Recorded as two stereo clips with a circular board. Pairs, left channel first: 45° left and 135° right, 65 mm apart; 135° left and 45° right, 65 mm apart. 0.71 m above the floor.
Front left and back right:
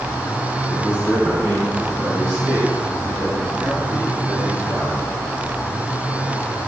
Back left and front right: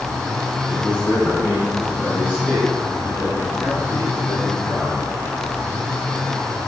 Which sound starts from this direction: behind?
A man speaking, at 0.7 s.